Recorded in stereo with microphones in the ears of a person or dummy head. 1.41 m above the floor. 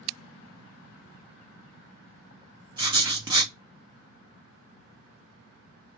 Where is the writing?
30° right (ahead or behind), 0.8 m.